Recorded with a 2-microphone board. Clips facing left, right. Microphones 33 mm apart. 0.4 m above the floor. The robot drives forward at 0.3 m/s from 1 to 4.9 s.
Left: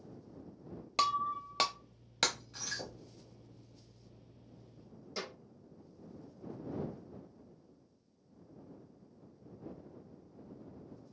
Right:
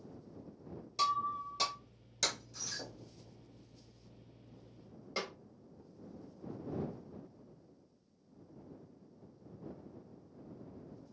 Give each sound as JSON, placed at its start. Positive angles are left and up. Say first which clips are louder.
{"t": 1.0, "sound": "breaking glass", "louder": "left 1 dB", "side_deg": 75, "distance_m": 0.6}
{"t": 2.8, "sound": "knocking", "louder": "left 2 dB", "side_deg": 10, "distance_m": 1.3}
{"t": 5.2, "sound": "a snare drum", "louder": "right 3 dB", "side_deg": -40, "distance_m": 1.2}